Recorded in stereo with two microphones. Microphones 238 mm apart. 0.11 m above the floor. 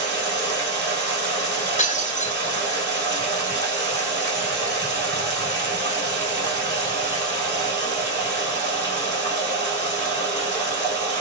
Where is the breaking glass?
30° left (ahead or behind), 1.1 m.